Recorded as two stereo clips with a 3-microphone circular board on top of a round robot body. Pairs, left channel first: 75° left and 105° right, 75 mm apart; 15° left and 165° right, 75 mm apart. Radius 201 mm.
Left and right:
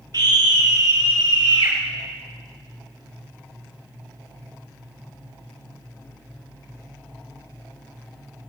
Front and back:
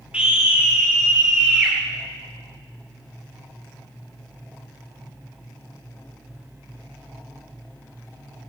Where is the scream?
90° right, 1.8 m; by 1.8 s 95° right, 3 m.